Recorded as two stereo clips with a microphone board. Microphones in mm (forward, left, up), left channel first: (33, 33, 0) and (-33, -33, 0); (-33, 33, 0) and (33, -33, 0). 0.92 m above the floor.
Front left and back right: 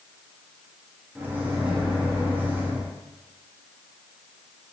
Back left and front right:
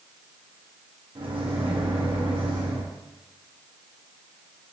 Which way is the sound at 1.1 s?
60° right.